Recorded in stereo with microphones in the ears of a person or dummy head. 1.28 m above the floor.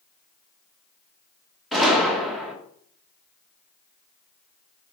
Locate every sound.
1.7 s a gunshot: 5° left (ahead or behind), 1.3 m